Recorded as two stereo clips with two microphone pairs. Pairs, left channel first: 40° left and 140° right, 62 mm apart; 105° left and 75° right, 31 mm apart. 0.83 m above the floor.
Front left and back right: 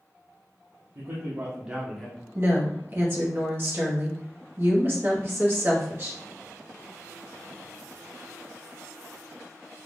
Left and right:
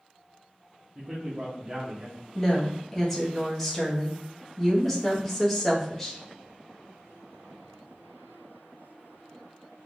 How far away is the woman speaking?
About 0.8 m.